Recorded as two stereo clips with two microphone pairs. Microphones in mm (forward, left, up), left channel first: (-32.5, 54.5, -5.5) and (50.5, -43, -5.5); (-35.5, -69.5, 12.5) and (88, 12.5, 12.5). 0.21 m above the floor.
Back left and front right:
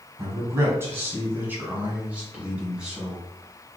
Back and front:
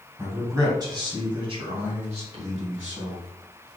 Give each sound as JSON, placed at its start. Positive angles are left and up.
{"t": 0.2, "sound": "a man speaking", "azimuth_deg": -20, "distance_m": 1.6}